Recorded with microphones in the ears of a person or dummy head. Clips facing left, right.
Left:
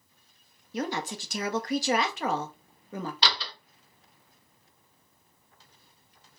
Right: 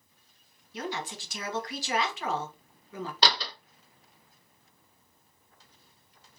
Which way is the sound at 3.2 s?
40° right (ahead or behind).